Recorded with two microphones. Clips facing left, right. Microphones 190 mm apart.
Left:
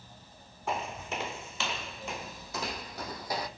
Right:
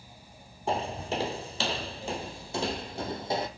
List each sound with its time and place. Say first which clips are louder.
0.7 s footsteps: right 5 dB; 30° right (ahead or behind), 1.3 m; by 3.5 s 25° right (ahead or behind), 1.7 m